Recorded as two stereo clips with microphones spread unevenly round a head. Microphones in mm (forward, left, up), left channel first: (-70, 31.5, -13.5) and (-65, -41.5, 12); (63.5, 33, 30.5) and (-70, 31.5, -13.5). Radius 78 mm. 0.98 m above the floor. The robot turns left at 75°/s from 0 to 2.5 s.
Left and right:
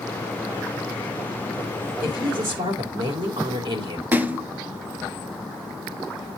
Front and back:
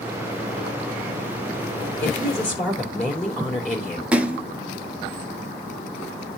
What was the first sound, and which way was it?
A woman speaking, 50° right.